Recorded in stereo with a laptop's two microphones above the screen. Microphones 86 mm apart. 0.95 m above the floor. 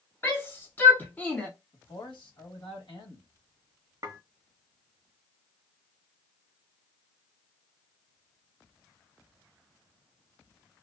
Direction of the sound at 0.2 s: 25° left (ahead or behind).